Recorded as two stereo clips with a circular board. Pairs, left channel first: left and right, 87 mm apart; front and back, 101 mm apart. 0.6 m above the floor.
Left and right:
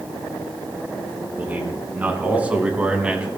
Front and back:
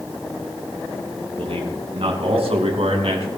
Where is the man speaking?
160° right, 6 m; by 3.3 s 170° right, 4 m.